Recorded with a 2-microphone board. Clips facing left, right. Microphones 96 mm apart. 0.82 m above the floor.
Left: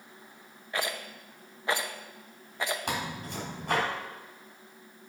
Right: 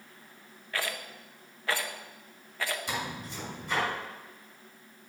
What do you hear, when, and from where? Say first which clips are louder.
0.7 s a rattle: left 2 dB; 20° left (ahead or behind), 0.6 m
2.9 s tearing paper: left 2 dB; 70° left (ahead or behind), 4.5 m